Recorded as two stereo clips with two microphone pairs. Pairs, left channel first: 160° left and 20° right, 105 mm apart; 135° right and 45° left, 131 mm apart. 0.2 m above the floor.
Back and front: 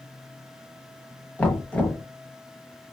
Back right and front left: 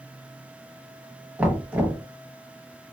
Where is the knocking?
100° left, 0.8 m.